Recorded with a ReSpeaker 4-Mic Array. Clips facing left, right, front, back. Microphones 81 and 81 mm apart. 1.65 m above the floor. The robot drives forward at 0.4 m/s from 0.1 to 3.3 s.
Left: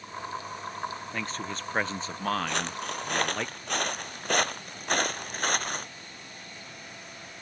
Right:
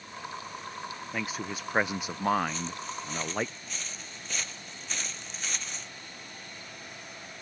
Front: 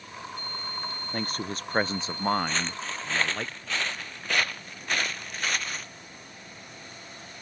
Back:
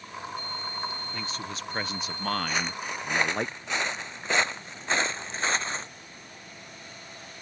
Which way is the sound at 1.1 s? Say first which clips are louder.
Even, front 3 dB; 10° right.